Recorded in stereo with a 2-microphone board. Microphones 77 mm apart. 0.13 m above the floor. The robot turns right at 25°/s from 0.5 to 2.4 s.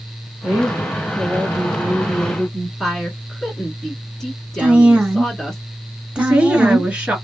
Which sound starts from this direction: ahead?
A woman speaking, at 0.4 s.